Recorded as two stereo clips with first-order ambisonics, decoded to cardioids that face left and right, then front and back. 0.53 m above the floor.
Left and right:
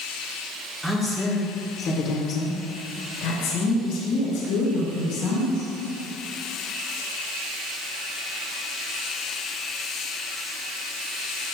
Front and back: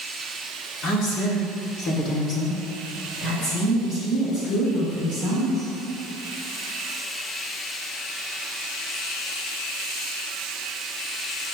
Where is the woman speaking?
Straight ahead, 1.5 m; by 5.7 s 75° left, 4 m.